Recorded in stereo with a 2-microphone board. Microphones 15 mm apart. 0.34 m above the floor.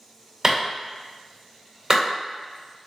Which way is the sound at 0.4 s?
40° right (ahead or behind).